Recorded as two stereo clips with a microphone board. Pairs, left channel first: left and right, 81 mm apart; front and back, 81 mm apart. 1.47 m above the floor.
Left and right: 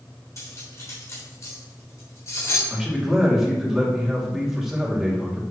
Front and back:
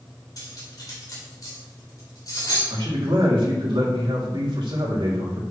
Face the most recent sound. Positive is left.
turn(degrees=-175)